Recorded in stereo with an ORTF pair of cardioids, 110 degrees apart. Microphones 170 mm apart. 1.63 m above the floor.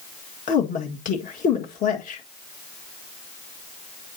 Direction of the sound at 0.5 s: 55° left.